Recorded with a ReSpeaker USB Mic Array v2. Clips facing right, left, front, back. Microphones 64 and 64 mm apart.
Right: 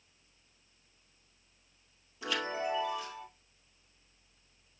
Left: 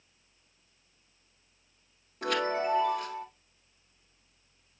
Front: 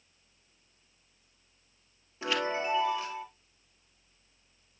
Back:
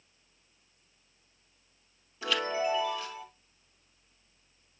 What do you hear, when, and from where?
2.2 s a chime: 65° left, 3 m